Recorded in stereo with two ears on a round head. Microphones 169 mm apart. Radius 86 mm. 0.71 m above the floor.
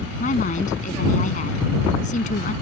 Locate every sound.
0.2 s a woman speaking: 40° left (ahead or behind)